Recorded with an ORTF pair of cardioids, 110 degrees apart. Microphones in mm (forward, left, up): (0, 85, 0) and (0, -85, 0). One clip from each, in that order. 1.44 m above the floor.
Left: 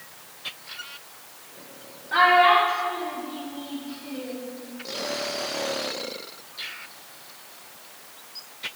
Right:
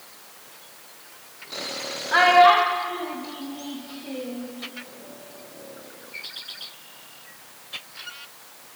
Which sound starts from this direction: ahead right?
A child speaking, at 2.1 s.